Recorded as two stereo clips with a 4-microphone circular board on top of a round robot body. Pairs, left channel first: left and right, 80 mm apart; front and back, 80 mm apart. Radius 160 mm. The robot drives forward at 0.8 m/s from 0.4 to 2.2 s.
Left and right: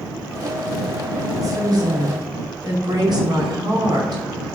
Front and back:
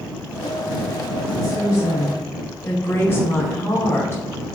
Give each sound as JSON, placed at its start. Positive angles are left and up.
{"t": 1.3, "sound": "a woman speaking", "azimuth_deg": -45, "distance_m": 2.5}